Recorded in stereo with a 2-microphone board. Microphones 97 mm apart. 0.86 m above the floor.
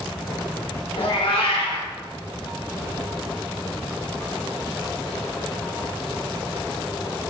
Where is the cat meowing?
65° left (ahead or behind), 1.4 m.